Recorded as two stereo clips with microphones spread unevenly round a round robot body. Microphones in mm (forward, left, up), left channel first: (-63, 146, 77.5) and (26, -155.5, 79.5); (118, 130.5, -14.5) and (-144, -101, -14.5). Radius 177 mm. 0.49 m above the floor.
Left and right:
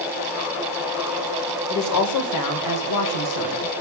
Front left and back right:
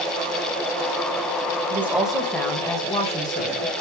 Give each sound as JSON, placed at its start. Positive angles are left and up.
{"t": 1.7, "sound": "a woman speaking", "azimuth_deg": 140, "distance_m": 1.9}